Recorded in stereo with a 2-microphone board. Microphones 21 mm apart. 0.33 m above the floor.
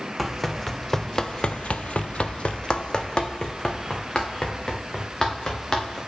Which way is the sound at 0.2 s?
5° left (ahead or behind).